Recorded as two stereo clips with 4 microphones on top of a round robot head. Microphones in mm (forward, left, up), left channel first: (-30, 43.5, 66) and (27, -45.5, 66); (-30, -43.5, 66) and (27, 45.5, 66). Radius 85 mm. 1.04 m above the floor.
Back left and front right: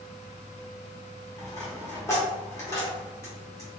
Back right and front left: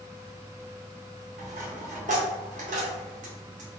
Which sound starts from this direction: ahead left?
A dropped coin, at 1.4 s.